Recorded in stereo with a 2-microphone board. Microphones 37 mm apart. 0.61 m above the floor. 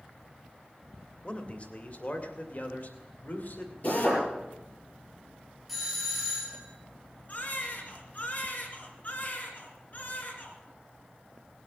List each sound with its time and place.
1.2 s a man speaking: 35° left (ahead or behind), 1.7 m; by 3.7 s 60° left (ahead or behind), 2.5 m
3.8 s a drill: 45° left (ahead or behind), 7.5 m
5.7 s a doorbell: centre (ahead or behind), 3.5 m
7.3 s a baby crying: 50° left (ahead or behind), 2.5 m